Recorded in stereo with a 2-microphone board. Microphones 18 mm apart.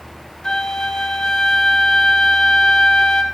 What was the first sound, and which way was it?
A flute, 45° left (ahead or behind).